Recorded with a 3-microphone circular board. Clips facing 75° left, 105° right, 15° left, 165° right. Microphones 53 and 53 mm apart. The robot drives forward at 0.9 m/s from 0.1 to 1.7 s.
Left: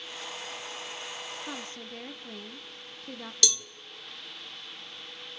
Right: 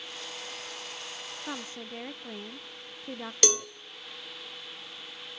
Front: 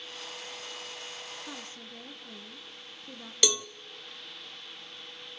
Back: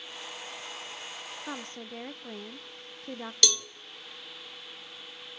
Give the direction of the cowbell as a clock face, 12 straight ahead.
2 o'clock.